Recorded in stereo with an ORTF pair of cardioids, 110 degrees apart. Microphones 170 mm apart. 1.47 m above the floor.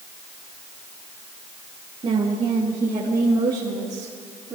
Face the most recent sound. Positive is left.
turn(degrees=-20)